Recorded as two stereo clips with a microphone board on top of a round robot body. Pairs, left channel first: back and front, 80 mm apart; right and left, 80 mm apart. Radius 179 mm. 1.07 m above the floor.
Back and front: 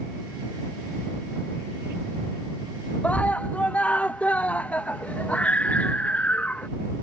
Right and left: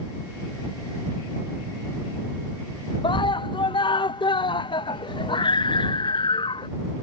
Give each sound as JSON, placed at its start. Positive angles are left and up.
{"t": 3.0, "sound": "a scream", "azimuth_deg": -105}